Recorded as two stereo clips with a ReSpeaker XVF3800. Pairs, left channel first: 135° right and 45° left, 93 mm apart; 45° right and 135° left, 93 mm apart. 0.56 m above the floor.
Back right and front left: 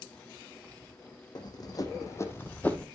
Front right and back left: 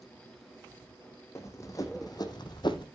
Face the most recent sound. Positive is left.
turn(degrees=-60)